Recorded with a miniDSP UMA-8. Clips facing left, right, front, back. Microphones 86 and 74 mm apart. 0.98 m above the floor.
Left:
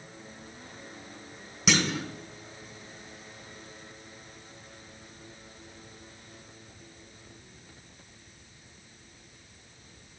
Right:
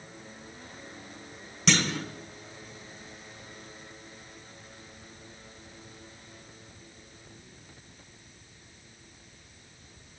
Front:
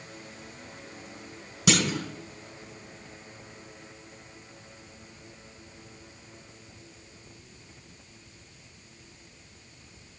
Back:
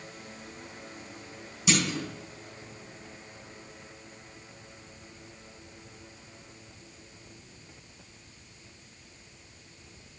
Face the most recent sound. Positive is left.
turn(degrees=5)